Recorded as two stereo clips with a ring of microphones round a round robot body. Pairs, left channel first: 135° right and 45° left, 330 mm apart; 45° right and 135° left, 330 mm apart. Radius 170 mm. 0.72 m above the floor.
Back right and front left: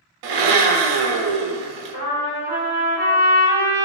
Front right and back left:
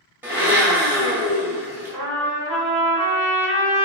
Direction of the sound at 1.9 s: 170° right.